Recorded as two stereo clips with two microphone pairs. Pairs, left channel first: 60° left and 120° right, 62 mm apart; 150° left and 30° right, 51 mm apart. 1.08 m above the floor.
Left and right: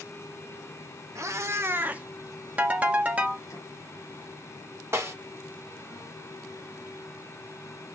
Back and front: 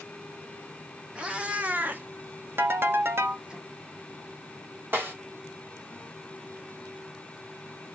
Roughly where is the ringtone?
Ahead right.